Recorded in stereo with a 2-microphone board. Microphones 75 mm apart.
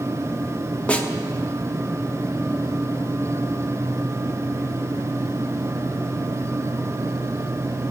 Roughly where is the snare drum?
Centre.